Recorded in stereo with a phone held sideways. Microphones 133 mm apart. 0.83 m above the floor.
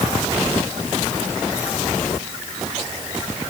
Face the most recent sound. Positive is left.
No sound to turn to.